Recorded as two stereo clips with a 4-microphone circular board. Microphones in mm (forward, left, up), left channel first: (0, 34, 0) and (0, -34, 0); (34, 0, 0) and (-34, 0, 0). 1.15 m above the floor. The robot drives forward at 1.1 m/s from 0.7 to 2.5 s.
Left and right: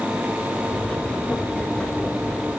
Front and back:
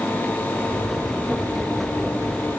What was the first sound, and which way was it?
Only background noise.